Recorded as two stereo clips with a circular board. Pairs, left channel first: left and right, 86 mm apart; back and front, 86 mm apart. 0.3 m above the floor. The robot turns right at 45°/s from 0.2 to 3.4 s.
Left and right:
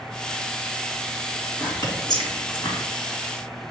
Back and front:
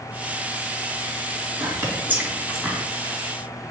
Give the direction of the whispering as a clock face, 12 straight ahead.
11 o'clock.